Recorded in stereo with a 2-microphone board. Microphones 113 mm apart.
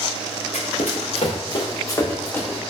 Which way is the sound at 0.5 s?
85° left.